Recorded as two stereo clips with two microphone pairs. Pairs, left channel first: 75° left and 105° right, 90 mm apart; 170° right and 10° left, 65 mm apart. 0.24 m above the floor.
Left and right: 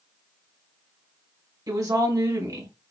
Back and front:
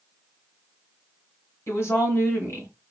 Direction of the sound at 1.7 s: 140° right.